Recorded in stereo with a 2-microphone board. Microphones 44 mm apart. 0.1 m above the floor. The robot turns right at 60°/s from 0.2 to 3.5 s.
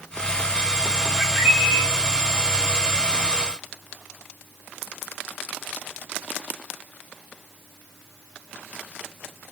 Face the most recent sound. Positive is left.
turn(degrees=-10)